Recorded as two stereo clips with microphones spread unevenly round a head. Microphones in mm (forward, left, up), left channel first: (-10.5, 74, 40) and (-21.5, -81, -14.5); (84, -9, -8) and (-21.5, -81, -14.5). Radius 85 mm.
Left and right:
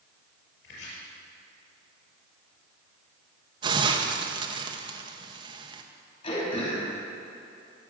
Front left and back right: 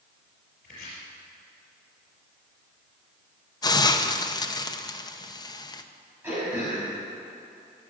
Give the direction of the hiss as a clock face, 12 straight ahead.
1 o'clock.